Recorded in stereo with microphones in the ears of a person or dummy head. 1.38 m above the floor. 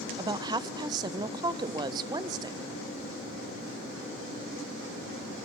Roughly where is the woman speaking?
Centre.